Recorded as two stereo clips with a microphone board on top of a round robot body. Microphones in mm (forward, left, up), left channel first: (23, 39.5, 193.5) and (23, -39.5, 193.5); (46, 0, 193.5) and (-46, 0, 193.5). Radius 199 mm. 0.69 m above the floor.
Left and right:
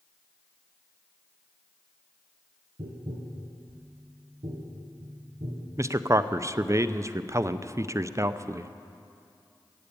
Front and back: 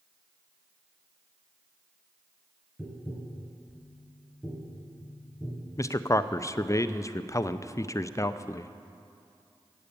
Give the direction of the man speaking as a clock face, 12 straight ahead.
2 o'clock.